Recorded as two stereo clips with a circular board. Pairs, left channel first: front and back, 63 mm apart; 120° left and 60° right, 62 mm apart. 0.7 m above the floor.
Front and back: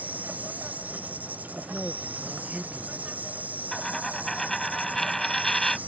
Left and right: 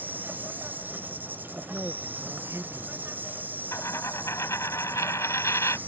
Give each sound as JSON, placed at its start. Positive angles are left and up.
{"t": 0.0, "sound": "an insect", "azimuth_deg": -120}
{"t": 1.6, "sound": "a man speaking", "azimuth_deg": -105}
{"t": 3.7, "sound": "a dropped coin", "azimuth_deg": 85}